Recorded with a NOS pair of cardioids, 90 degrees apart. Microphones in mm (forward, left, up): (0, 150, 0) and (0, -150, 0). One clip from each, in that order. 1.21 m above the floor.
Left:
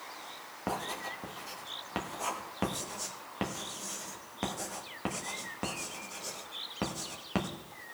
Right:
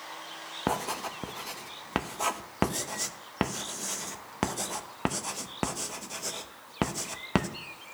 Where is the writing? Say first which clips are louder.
Right 4 dB; 45° right, 0.9 m.